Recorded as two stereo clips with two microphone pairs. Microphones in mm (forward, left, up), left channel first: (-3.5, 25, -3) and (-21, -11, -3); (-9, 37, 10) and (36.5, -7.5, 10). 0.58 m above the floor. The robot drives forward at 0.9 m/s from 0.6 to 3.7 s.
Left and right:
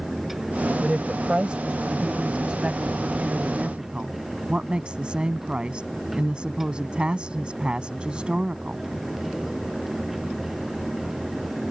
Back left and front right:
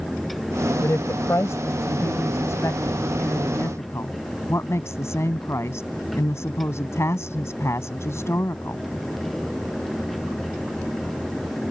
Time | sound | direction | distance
0.8 | a woman speaking | straight behind | ?